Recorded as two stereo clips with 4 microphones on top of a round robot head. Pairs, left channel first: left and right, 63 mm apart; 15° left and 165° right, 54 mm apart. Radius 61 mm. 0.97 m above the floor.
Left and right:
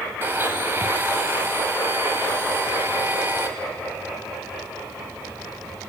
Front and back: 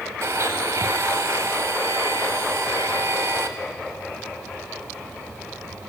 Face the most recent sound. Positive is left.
turn(degrees=-145)